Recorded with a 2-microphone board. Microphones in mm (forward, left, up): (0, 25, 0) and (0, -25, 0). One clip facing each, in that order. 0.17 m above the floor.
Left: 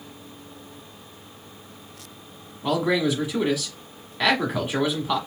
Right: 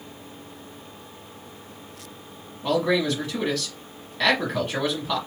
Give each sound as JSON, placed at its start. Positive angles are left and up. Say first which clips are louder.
{"t": 2.6, "sound": "a man speaking", "louder": "even", "side_deg": 10, "distance_m": 1.3}